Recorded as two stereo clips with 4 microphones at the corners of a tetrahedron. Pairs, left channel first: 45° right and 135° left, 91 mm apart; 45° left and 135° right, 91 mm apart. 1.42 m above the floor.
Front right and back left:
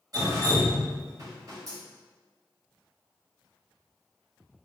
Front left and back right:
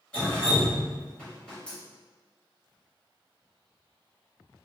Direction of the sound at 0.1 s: 115° left.